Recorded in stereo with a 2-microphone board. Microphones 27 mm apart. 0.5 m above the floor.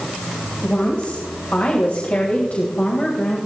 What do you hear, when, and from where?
0.6 s a woman speaking: 55° left (ahead or behind), 3 m; by 3.4 s 50° left (ahead or behind), 3 m